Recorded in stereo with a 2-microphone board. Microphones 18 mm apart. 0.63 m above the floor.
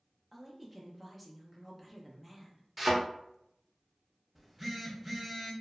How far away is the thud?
About 0.7 m.